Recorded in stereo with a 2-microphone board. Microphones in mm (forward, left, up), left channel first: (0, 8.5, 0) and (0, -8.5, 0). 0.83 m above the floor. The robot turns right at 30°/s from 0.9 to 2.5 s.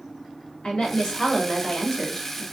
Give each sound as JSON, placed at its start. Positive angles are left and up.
{"t": 0.6, "sound": "a woman speaking", "azimuth_deg": 120, "distance_m": 2.0}